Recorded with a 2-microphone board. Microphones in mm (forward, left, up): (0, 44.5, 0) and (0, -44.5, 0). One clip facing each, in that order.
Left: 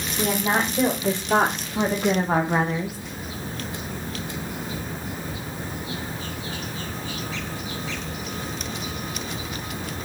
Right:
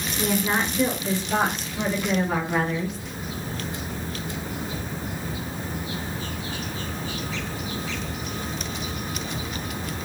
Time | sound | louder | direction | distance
0.2 | a woman speaking | left 1 dB | 85° left | 2.5 m